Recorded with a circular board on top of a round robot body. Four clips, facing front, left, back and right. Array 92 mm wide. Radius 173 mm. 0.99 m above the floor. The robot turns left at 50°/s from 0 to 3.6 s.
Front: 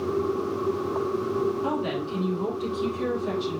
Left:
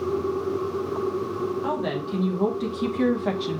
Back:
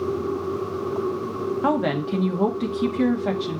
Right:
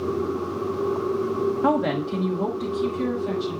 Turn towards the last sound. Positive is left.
turn(degrees=115)